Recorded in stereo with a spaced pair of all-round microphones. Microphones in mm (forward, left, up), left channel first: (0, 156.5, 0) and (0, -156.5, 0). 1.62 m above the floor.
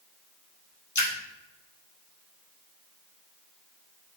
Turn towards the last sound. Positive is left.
turn(degrees=65)  # may be behind; listen again after turning